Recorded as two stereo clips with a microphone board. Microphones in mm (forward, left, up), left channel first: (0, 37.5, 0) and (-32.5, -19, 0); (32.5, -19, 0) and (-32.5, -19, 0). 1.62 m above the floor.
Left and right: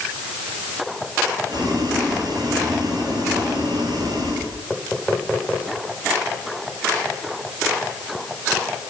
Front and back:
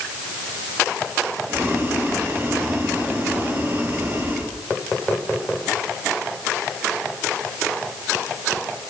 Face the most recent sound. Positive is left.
turn(degrees=-130)